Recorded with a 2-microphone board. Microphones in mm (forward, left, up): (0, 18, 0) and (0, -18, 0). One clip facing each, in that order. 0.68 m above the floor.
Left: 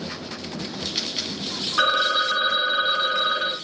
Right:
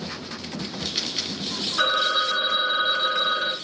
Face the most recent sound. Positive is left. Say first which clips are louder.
# left 2 dB
turn(degrees=50)  # may be behind; listen again after turning